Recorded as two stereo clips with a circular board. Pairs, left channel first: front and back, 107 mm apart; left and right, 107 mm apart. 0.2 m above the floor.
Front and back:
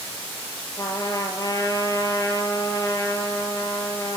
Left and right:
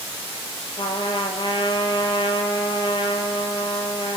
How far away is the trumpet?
About 1.8 m.